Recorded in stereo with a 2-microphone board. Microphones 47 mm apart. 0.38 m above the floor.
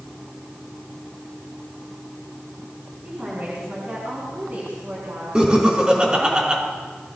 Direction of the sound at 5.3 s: 20° right (ahead or behind).